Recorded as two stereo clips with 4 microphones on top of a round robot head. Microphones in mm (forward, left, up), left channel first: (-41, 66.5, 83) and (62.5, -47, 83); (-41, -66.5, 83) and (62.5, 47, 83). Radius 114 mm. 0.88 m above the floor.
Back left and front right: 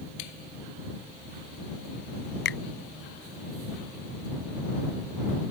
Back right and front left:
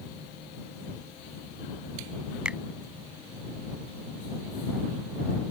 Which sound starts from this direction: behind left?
A finger snap, at 2.5 s.